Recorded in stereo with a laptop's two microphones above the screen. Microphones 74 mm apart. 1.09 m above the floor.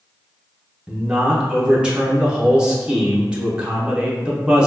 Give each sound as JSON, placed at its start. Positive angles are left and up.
{"t": 0.9, "sound": "a man speaking", "side_deg": -15, "distance_m": 0.8}